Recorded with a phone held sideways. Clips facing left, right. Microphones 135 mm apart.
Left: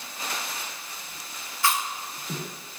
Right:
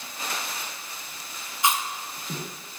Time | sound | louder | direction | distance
1.6 | chewing | right 1 dB | 20° right (ahead or behind) | 1.0 m